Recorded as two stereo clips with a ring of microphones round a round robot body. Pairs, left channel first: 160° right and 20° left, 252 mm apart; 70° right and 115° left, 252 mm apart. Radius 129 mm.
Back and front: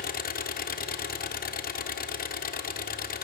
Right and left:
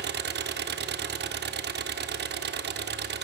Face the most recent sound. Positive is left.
turn(degrees=155)